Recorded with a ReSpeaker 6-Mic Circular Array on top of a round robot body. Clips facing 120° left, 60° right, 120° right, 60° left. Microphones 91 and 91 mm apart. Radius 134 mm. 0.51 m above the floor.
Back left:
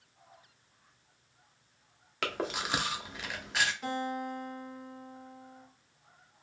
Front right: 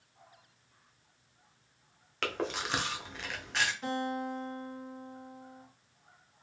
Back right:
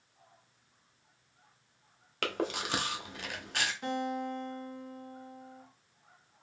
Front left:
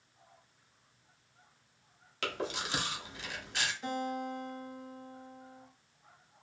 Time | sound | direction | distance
2.2 | chewing | 155° right | 0.8 m
3.8 | a guitar | 150° right | 1.8 m